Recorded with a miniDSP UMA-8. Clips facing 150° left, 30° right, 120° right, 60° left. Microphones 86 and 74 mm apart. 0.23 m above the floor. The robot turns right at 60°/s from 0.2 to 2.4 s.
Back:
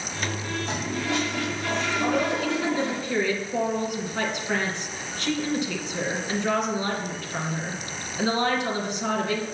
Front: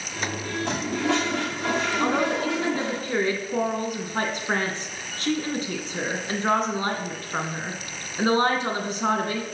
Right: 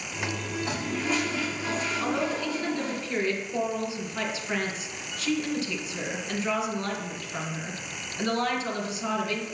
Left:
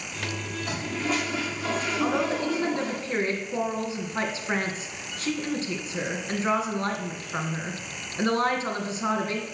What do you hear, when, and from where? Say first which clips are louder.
0.6 s a toilet flushing: front 6 dB, left 1 dB; 55° right, 3.5 m; by 3.0 s 50° left, 3.5 m
2.0 s a woman speaking: even, left 4 dB; 15° right, 2 m; by 9.4 s 10° left, 2 m